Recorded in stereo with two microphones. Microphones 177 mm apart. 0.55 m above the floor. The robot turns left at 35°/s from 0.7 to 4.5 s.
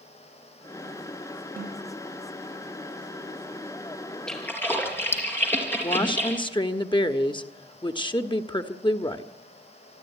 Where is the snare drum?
55° right (ahead or behind), 8 m; by 1.9 s 40° right (ahead or behind), 8 m.